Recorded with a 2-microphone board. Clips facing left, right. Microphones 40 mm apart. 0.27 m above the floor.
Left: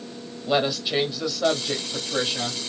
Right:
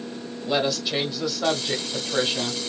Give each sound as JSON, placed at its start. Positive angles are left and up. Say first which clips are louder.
{"t": 0.5, "sound": "a woman speaking", "louder": "left 1 dB", "side_deg": 15, "distance_m": 1.1}